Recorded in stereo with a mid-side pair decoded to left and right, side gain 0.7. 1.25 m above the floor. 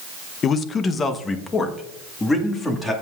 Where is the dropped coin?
No dropped coin in this recording.